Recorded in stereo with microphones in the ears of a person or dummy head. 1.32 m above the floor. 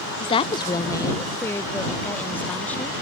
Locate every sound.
0.2 s a woman speaking: 25° left (ahead or behind); by 3.0 s 5° left (ahead or behind)